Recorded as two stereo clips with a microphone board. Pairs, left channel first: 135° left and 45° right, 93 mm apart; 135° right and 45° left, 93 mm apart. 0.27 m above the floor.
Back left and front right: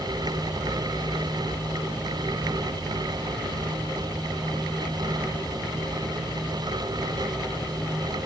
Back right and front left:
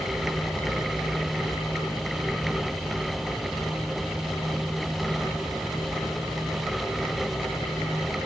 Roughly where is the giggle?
No giggle in this recording.